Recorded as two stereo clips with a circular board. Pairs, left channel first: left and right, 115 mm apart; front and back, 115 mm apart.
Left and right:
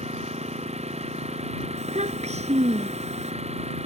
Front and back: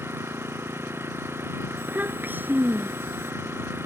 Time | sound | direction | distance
0.0 | an engine running | 110° right | ?
1.8 | a child speaking | 105° right | ?